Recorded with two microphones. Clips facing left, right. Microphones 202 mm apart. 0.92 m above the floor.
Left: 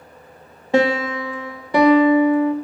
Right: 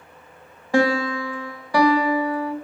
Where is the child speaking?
No child speaking in this recording.